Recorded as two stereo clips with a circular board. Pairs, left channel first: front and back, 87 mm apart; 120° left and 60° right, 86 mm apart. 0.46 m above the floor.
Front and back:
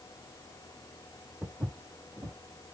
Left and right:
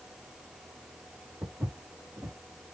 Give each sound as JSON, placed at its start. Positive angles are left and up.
{"t": 1.4, "sound": "footsteps", "azimuth_deg": -110, "distance_m": 1.5}